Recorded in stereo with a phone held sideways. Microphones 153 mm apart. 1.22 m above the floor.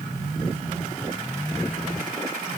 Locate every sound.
Only background noise.